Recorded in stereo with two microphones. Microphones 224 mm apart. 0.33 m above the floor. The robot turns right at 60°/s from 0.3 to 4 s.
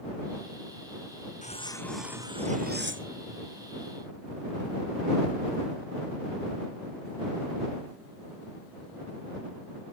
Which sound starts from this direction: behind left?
Cutlery clinking, at 1.4 s.